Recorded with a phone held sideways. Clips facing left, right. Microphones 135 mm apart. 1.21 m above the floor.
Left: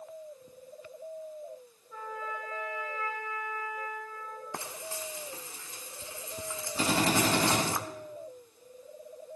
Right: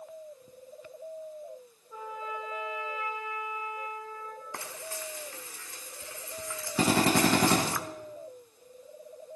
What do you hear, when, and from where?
1.9 s a trumpet: 20° right (ahead or behind), 4.5 m
4.5 s frying: 20° left (ahead or behind), 1.1 m
6.8 s a drill: 70° right (ahead or behind), 6 m